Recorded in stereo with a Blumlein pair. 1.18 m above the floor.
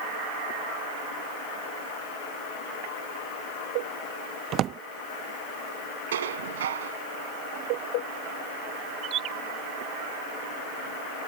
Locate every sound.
4.5 s a drawer: 30° right
6.1 s dishes clattering: 60° right
9.0 s a bird: 35° right